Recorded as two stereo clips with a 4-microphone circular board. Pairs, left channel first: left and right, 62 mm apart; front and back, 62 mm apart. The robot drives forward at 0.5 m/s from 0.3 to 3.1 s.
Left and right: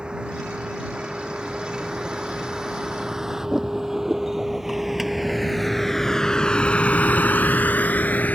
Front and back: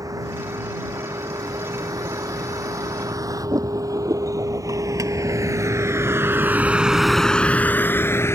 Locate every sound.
0.0 s a vehicle: 165° right; by 8.4 s 30° left